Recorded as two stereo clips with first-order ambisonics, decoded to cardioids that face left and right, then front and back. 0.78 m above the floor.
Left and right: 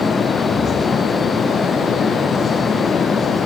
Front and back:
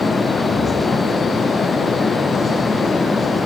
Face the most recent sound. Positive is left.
No sound to turn to.